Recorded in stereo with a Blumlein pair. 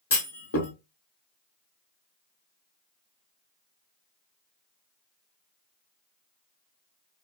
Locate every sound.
0.1 s a clunk: 70° left, 1.4 m